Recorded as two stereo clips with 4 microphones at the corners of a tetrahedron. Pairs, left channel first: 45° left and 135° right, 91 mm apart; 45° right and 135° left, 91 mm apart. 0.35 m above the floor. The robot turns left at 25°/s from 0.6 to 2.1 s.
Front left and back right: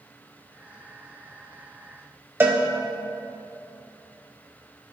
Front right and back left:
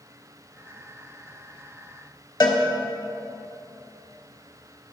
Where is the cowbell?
75° right, 1.0 m.